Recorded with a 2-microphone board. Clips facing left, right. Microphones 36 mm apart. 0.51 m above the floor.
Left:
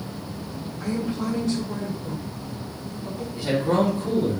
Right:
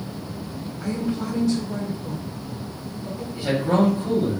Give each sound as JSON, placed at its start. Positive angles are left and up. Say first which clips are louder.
{"t": 0.8, "sound": "a woman speaking", "louder": "even", "side_deg": 30, "distance_m": 1.7}
{"t": 3.4, "sound": "a man speaking", "louder": "right 1 dB", "side_deg": -10, "distance_m": 1.0}